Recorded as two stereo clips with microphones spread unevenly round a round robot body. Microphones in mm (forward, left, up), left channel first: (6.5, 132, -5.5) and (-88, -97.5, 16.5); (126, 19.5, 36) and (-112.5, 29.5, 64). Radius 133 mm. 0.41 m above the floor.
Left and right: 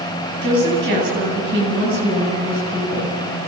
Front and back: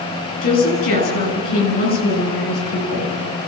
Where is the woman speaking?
55° right, 10 m.